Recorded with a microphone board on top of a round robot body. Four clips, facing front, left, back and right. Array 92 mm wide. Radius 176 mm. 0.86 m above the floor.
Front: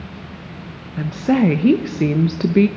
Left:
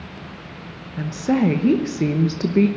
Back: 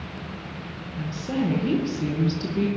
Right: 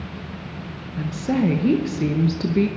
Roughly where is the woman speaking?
Ahead.